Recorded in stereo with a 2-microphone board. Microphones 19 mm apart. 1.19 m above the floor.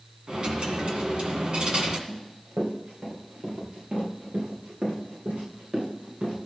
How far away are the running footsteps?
About 6.5 m.